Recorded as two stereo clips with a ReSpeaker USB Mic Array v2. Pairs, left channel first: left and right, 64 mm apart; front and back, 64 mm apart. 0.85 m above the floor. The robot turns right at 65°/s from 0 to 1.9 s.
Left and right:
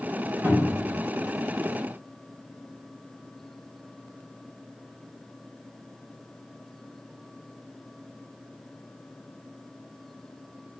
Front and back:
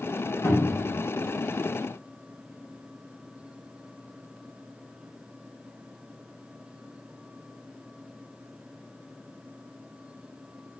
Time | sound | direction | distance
0.4 | a cupboard door | 35° right | 1.2 m